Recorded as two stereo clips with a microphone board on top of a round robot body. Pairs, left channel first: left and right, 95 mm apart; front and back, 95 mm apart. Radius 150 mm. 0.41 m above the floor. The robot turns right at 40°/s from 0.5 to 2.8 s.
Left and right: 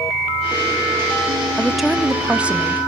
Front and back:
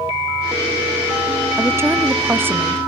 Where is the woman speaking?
175° left, 0.9 m; by 2.8 s 135° right, 0.9 m.